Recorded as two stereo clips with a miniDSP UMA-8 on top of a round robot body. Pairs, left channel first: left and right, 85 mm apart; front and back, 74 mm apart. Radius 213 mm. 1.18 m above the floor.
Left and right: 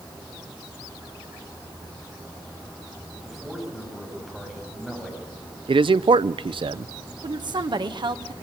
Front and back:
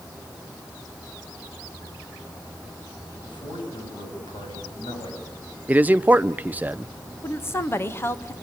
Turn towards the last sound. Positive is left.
turn(degrees=-60)